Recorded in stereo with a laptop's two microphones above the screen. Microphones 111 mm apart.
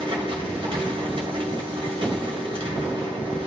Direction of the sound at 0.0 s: 60° right (ahead or behind).